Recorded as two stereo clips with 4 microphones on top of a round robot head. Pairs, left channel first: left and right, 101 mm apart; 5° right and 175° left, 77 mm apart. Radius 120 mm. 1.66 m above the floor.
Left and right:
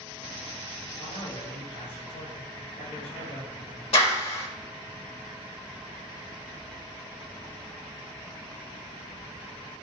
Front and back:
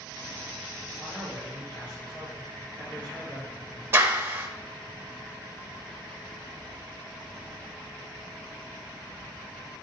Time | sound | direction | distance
1.0 | a man speaking | 70° left | 4 m
3.9 | a clap | 115° left | 1.2 m